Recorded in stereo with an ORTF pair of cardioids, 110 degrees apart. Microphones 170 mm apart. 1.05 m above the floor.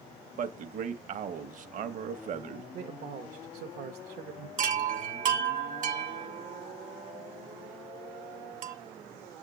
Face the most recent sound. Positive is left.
turn(degrees=-55)